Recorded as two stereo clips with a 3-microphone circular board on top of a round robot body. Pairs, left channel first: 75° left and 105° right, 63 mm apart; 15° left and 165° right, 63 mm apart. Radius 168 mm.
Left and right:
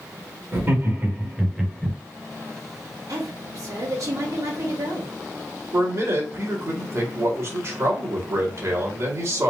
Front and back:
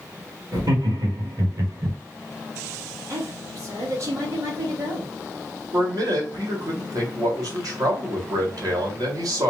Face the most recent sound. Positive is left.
turn(degrees=-145)